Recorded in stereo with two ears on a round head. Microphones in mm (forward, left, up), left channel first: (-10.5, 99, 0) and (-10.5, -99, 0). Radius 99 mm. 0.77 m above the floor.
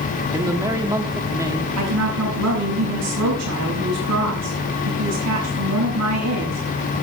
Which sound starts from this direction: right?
A woman speaking, at 1.8 s.